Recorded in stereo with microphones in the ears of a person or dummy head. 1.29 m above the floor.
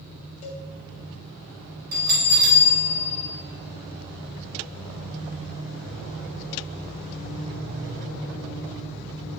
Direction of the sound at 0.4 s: 40° left (ahead or behind).